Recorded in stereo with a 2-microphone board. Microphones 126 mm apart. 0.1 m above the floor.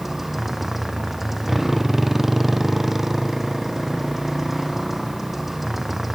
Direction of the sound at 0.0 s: Centre (ahead or behind).